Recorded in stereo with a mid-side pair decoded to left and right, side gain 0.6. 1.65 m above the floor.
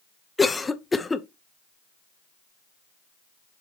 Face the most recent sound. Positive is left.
turn(degrees=15)